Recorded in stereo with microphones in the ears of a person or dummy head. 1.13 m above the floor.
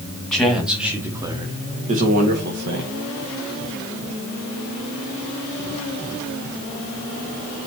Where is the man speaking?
5° left (ahead or behind), 2 m; by 2.9 s 60° right (ahead or behind), 1.9 m.